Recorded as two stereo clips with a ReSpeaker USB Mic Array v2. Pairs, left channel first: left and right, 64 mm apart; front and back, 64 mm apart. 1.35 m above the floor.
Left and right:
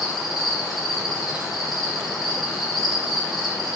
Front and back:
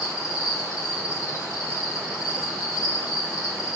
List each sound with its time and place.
0.0 s an insect: straight ahead, 6.5 m